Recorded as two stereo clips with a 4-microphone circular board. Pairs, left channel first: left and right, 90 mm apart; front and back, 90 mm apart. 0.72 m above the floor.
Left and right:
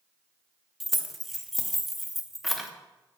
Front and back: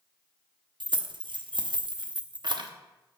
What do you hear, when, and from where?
0.8 s keys jangling: straight behind, 0.7 m